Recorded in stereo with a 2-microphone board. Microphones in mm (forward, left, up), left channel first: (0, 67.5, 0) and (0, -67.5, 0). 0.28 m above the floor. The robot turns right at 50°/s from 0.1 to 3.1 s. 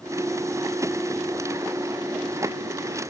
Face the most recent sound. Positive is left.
No sound to turn to.